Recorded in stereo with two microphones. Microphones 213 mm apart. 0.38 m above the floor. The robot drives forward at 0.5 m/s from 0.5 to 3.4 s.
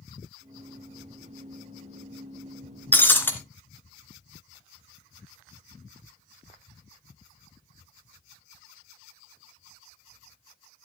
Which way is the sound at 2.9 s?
10° left (ahead or behind).